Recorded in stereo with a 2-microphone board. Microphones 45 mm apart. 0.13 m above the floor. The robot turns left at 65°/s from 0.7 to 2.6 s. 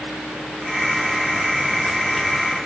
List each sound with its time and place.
Only background noise.